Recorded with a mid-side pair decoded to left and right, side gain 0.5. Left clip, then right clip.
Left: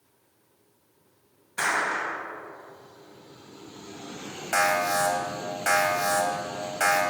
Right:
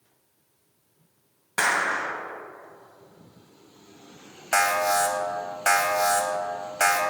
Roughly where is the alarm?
Ahead right.